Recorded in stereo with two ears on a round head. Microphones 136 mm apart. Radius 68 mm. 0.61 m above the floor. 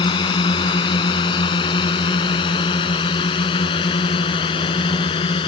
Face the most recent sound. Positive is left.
turn(degrees=35)  # may be behind; listen again after turning